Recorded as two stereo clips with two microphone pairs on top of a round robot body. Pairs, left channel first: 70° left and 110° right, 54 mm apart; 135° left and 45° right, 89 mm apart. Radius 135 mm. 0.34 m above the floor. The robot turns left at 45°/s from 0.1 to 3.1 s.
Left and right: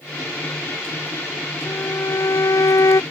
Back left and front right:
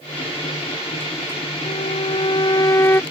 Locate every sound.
1.6 s a violin: 125° left; by 3.0 s 65° left